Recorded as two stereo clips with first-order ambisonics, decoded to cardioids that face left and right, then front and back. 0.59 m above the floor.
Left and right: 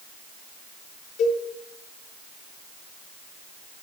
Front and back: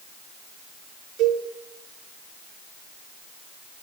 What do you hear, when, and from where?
1.2 s a cowbell: 135° left, 5.5 m